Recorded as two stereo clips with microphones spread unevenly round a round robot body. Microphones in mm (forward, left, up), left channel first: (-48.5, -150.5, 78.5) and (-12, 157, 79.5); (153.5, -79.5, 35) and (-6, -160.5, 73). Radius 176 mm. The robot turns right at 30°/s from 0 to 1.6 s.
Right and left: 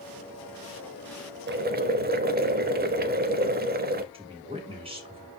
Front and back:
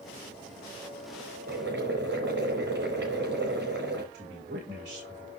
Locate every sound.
1.5 s boiling: 145° left, 0.8 m
4.1 s a woman speaking: 155° left, 4 m